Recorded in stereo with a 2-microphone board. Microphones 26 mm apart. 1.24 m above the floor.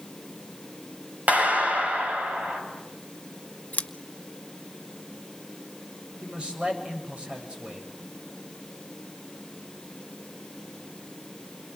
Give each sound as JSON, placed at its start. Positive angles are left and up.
{"t": 1.3, "sound": "a clap", "side_deg": -70, "distance_m": 7.0}
{"t": 3.7, "sound": "scissors", "side_deg": 70, "distance_m": 1.0}
{"t": 6.2, "sound": "a man speaking", "side_deg": -35, "distance_m": 7.5}